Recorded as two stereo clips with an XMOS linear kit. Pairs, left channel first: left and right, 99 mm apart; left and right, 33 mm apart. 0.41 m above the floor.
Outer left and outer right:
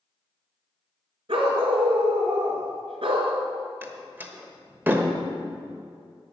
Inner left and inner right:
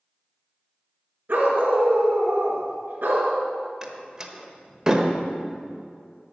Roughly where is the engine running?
I don't hear an engine running.